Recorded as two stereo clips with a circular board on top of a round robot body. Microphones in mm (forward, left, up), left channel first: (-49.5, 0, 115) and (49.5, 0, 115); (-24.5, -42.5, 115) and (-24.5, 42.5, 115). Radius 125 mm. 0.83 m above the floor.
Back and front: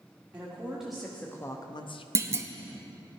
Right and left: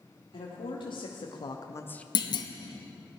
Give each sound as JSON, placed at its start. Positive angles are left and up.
{"t": 0.3, "sound": "a woman speaking", "azimuth_deg": -75, "distance_m": 2.0}
{"t": 2.1, "sound": "a clunk", "azimuth_deg": -60, "distance_m": 0.9}